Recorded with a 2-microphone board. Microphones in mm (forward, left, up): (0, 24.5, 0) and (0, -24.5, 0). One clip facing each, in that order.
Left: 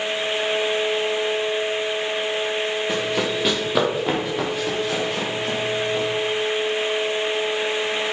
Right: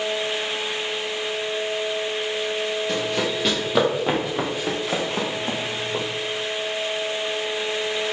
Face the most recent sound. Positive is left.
turn(degrees=-40)  # may be behind; listen again after turning